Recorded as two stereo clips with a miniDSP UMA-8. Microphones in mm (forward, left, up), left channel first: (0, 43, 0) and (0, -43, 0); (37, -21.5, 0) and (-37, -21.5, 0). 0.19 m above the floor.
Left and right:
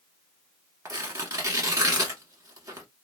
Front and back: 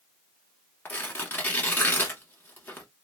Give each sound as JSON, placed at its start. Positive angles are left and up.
{"t": 0.8, "sound": "tearing paper", "azimuth_deg": -55, "distance_m": 1.0}